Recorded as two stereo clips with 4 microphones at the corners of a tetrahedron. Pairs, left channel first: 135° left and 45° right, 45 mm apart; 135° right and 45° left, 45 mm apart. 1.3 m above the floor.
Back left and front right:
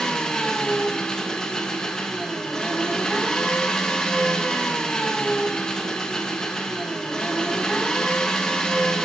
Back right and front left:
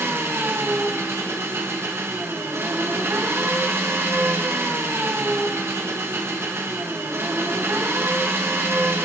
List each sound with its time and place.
0.0 s an engine running: 65° left, 1.2 m